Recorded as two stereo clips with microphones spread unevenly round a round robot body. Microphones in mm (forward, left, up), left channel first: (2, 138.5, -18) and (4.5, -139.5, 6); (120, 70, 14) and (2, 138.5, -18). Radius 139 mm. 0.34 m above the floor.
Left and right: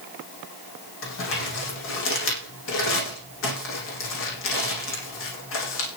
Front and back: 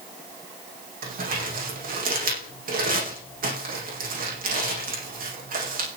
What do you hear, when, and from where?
1.0 s crumpling: 140° left, 8 m